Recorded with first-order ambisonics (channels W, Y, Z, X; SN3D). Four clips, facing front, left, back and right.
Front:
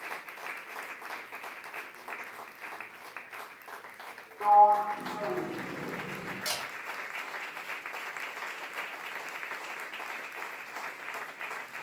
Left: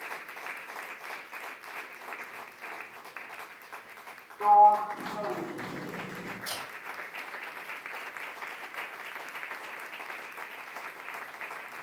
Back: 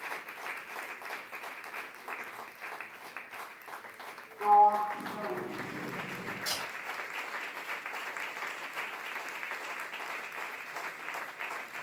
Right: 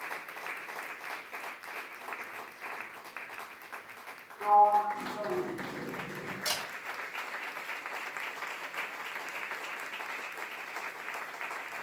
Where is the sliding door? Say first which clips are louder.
Left 4 dB, front 2 dB; 60° left, 0.6 m.